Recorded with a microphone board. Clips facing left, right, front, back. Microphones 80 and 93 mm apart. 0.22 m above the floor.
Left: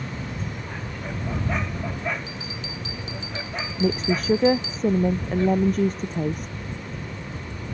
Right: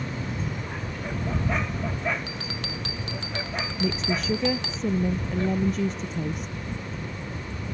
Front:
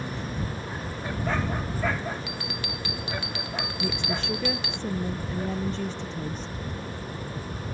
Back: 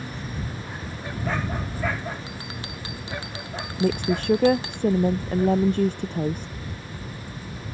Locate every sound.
2.3 s a bell: 120° right
3.8 s a woman speaking: 140° left